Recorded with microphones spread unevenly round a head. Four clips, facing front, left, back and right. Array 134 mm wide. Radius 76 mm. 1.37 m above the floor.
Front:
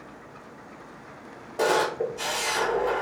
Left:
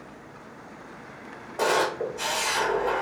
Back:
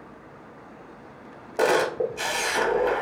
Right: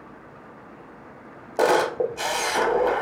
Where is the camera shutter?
105° right, 0.8 m.